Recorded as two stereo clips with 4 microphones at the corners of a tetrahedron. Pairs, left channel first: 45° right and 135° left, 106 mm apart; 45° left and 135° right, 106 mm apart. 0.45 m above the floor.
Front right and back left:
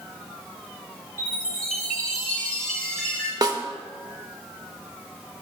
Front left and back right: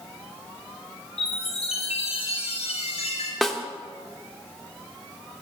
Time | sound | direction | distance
1.2 | a chime | 35° left | 2 m
3.4 | a snare drum | 130° left | 0.6 m